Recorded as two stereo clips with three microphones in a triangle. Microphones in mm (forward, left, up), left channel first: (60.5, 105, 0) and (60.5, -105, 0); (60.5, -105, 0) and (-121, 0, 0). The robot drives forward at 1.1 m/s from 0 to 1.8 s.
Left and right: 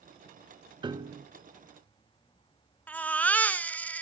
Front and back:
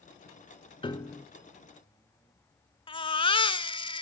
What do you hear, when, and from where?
0.8 s a piano: 55° right, 0.8 m; by 1.3 s 130° right, 0.8 m
2.9 s a baby crying: 10° left, 0.9 m